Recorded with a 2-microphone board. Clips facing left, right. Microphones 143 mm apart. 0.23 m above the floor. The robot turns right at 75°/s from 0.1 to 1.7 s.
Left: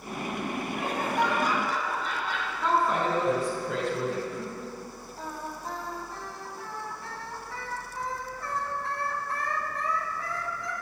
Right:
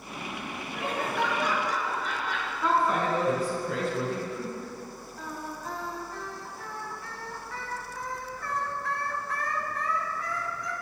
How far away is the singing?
About 1.0 m.